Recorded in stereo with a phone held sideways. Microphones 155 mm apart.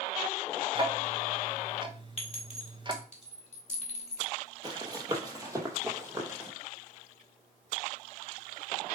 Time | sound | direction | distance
0.8 | ticking | 30° right (ahead or behind) | 1.1 m
2.2 | a clink | 45° left (ahead or behind) | 2 m
4.6 | running footsteps | 25° right (ahead or behind) | 1.8 m